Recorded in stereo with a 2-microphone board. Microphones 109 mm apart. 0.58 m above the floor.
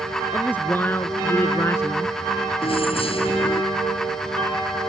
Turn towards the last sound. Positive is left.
turn(degrees=55)  # may be behind; listen again after turning